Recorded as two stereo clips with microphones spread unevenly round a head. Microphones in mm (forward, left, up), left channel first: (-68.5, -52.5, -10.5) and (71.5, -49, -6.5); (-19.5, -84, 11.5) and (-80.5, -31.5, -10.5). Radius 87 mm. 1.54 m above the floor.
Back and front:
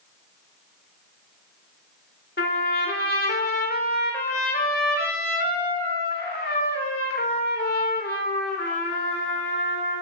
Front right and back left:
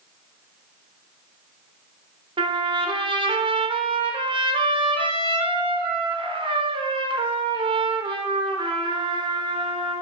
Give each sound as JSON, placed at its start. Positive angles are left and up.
{"t": 2.4, "sound": "a trumpet", "azimuth_deg": 145, "distance_m": 4.0}